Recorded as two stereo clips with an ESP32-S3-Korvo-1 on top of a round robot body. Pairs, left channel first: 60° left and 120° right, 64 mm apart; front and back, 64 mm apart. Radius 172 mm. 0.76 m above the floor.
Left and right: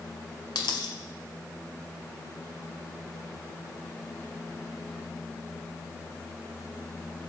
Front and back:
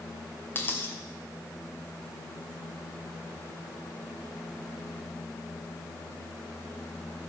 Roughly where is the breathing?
No breathing in this recording.